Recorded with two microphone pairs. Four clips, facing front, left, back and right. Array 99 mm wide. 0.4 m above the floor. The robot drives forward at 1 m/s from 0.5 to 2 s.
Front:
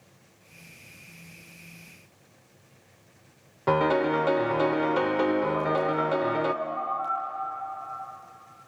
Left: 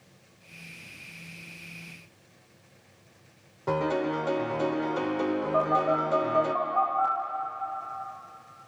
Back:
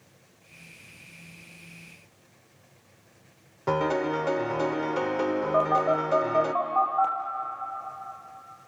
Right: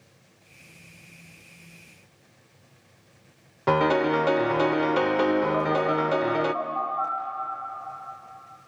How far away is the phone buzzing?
About 4 m.